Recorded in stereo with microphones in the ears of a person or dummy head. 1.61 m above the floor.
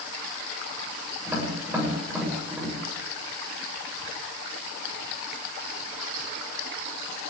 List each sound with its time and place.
1.3 s tapping: 15° right (ahead or behind), 8 m